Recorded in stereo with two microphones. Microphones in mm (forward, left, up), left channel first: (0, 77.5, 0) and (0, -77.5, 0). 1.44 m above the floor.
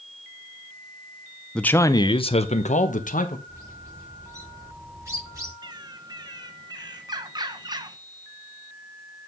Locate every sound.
1.6 s a man speaking: 5° left (ahead or behind), 0.6 m; by 3.4 s 60° left (ahead or behind), 1.3 m
3.5 s a bird: 20° right (ahead or behind), 3 m
5.6 s a bird: 25° right (ahead or behind), 0.7 m